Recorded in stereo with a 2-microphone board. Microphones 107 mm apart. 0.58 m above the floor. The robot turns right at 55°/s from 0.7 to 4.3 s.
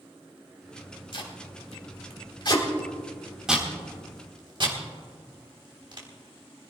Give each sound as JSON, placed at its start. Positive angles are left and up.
{"t": 1.1, "sound": "tape being pulled", "side_deg": 55, "distance_m": 3.5}